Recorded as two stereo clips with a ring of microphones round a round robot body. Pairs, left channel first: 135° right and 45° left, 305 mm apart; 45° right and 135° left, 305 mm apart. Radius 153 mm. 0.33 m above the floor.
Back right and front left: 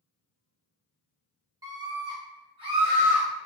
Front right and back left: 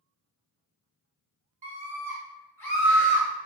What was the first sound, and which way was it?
A scream, 105° left.